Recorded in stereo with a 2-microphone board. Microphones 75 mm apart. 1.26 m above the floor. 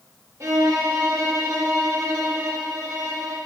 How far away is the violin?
About 0.6 m.